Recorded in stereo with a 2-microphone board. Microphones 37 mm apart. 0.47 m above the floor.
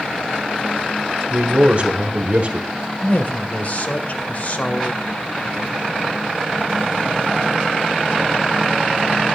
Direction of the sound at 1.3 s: 45° right (ahead or behind).